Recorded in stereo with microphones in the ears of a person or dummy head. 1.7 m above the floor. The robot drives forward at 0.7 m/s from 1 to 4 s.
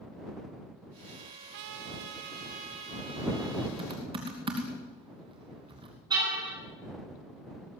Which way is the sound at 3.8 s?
30° right (ahead or behind).